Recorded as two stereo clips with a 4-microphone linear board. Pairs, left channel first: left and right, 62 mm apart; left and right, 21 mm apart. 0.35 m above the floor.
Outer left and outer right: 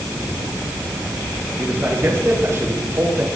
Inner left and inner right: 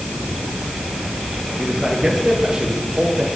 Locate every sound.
1.6 s a man speaking: 40° right (ahead or behind), 7.5 m